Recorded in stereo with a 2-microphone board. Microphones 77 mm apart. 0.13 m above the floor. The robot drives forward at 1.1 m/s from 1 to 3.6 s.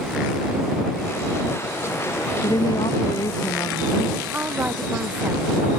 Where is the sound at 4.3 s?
20° right (ahead or behind).